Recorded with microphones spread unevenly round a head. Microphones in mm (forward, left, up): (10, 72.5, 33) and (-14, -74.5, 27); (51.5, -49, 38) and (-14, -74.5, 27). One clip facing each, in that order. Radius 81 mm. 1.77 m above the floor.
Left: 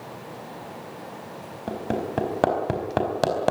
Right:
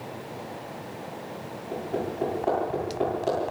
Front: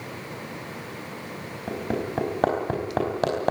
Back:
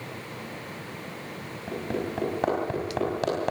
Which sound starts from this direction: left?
Hammering, at 1.7 s.